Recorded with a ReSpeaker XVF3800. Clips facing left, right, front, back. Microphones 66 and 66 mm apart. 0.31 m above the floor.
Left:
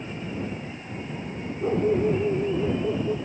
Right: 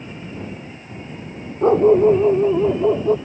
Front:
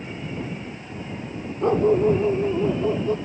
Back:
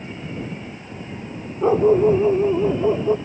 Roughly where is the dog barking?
Right.